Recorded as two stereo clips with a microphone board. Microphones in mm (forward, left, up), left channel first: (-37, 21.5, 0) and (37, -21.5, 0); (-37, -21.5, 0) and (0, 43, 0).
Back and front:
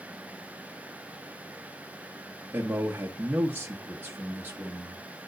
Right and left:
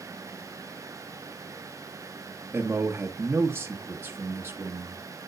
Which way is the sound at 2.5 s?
20° left.